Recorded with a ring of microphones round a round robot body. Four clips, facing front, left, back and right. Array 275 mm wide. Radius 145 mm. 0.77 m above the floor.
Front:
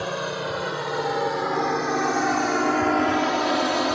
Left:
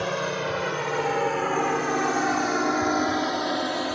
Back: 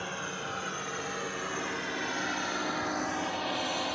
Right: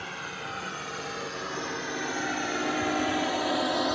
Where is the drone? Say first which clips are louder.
Left 11 dB, front 10 dB; 55° left; by 4.0 s 5° right.